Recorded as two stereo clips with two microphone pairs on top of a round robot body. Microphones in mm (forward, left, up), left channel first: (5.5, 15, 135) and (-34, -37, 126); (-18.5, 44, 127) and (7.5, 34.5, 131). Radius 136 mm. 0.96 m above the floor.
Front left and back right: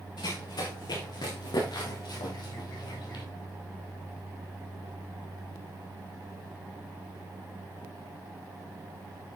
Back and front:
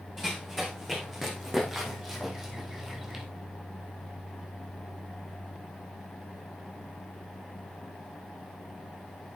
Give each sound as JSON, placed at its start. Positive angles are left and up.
{"t": 0.2, "sound": "running footsteps", "azimuth_deg": 65, "distance_m": 4.5}